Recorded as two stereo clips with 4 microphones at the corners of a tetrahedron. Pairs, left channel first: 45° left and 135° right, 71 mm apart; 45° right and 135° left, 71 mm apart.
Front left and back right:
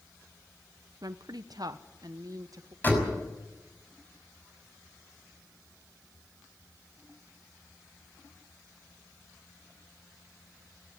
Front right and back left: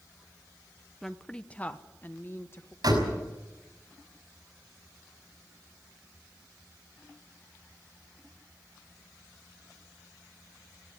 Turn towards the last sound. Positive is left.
turn(degrees=110)